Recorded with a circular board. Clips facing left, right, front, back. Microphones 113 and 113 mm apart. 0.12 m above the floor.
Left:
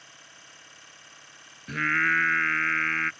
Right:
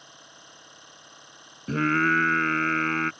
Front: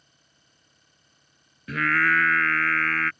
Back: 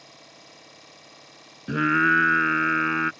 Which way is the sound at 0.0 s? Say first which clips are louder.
Right 3 dB, back 17 dB; 165° right.